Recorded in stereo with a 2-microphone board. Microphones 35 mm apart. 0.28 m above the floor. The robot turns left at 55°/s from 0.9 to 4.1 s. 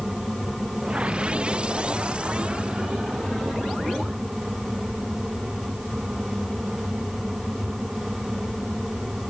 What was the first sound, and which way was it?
Only background noise.